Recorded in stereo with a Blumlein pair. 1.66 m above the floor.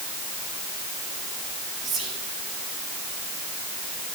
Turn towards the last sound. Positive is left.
turn(degrees=-30)